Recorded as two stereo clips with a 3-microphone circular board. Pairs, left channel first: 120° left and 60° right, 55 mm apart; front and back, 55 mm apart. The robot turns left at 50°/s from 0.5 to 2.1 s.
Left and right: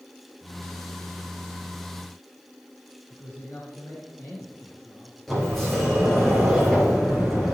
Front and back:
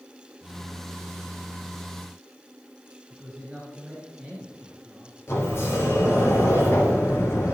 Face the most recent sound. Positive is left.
turn(degrees=35)